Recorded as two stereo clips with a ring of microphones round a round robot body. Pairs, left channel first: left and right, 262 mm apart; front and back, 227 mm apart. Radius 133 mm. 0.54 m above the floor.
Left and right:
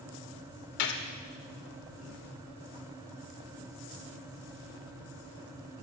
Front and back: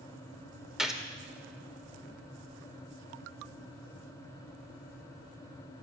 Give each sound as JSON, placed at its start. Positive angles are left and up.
{"t": 0.8, "sound": "a gunshot", "azimuth_deg": 90, "distance_m": 1.5}